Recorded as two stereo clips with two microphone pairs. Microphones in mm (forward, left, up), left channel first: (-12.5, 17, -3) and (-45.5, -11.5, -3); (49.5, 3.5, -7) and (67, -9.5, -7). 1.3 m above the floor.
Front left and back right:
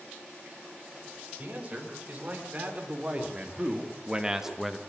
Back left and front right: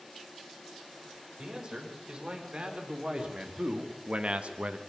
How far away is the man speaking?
About 5.5 m.